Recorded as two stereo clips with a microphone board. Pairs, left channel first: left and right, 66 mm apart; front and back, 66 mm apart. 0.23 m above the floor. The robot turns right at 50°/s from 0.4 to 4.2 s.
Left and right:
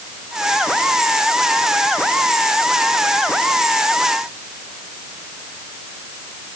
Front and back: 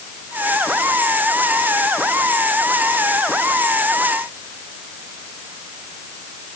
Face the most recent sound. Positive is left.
No sound to turn to.